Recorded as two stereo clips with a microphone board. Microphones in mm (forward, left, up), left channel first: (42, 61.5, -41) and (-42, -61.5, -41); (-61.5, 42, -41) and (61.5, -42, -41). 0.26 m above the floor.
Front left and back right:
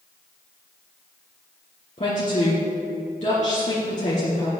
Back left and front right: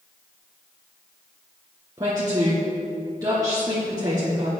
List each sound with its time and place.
2.0 s a woman speaking: 25° left, 2.5 m